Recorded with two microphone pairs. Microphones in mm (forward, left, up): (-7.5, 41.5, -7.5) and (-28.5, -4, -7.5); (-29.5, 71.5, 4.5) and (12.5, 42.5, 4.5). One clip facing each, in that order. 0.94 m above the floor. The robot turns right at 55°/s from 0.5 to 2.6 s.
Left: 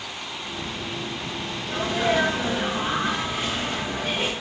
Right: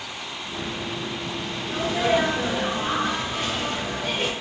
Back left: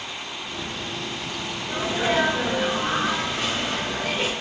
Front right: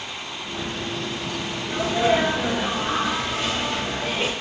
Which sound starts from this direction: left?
A sneeze, at 1.7 s.